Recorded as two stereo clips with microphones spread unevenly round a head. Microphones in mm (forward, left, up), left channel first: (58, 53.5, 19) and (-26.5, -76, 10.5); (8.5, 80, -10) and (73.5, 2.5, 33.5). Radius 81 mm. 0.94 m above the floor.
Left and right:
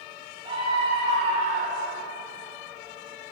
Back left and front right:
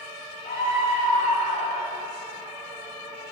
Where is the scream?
175° left, 4 m; by 2.0 s 160° right, 3 m.